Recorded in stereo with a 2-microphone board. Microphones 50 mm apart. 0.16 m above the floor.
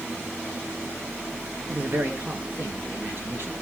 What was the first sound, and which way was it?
A man speaking, 40° right (ahead or behind).